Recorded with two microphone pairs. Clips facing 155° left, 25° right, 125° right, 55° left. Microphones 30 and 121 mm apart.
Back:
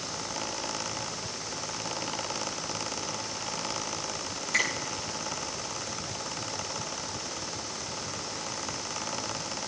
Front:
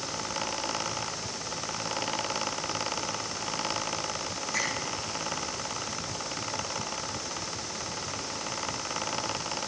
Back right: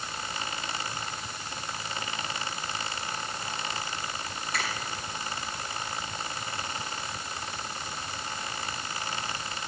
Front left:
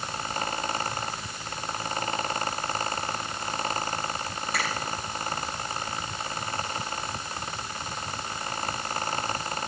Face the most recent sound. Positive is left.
turn(degrees=140)